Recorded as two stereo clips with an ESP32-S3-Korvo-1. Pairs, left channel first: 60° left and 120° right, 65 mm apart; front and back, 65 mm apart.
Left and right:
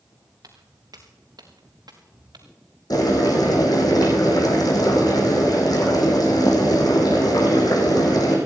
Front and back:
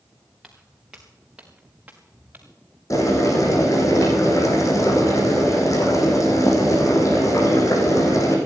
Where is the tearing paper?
No tearing paper in this recording.